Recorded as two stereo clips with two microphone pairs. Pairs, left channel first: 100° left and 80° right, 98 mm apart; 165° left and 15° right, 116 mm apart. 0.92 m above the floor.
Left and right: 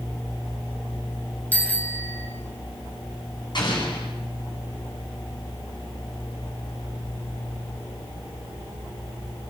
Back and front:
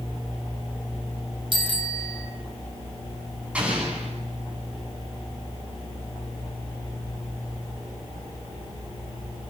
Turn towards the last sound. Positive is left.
turn(degrees=60)